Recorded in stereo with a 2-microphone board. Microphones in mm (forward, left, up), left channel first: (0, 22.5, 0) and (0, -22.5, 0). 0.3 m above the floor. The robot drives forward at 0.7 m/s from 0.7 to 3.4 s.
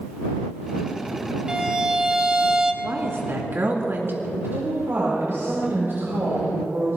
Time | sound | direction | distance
1.5 | a violin | 20° right (ahead or behind) | 1.2 m
2.8 | a woman speaking | 60° right (ahead or behind) | 3 m
4.4 | a woman speaking | 75° right (ahead or behind) | 6 m